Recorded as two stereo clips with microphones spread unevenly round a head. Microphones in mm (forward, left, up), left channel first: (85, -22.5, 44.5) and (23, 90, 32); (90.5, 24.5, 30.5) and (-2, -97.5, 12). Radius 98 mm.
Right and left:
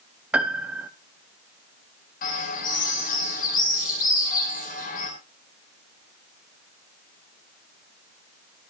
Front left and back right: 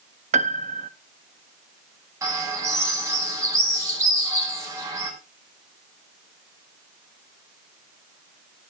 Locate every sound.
0.3 s a piano: 155° right, 0.5 m
2.2 s a bird: 55° right, 6.5 m